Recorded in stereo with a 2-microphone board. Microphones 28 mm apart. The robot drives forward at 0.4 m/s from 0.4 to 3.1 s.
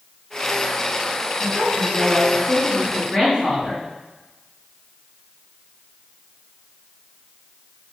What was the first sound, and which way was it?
A woman speaking, 30° right (ahead or behind).